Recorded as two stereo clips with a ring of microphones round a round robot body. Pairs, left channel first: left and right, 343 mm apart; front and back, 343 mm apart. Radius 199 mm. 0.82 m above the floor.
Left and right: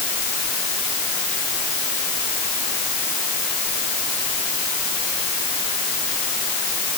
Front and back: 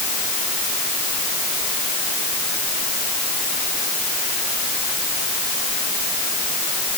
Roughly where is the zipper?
I don't hear a zipper.